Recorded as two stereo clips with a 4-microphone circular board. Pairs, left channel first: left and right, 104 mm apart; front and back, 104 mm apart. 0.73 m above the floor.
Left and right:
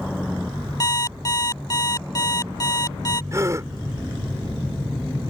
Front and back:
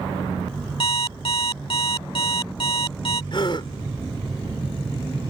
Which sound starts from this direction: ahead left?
An alarm clock, at 0.8 s.